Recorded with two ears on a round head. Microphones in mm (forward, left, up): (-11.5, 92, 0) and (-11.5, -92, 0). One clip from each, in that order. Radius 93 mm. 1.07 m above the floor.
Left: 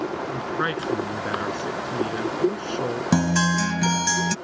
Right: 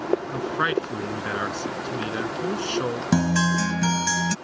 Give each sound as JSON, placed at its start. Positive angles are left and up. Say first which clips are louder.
{"t": 0.3, "sound": "a man speaking", "louder": "right 2 dB", "side_deg": -30}
{"t": 3.1, "sound": "a guitar", "louder": "left 1 dB", "side_deg": 5}